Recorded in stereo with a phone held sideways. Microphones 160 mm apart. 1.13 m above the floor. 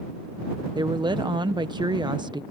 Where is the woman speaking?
30° right (ahead or behind).